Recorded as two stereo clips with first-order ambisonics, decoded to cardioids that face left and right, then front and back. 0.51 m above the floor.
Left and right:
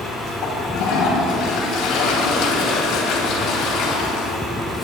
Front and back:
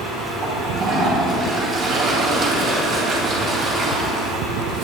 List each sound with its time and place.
0.4 s a toilet flushing: 120° left, 3.5 m